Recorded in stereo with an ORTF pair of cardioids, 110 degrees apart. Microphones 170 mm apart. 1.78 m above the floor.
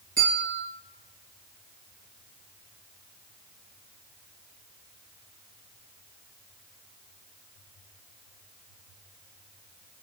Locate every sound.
0.2 s a bell: 50° right, 1.7 m